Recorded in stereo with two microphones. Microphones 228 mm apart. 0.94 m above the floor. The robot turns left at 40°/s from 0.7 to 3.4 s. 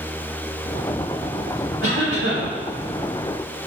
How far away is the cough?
About 1.4 m.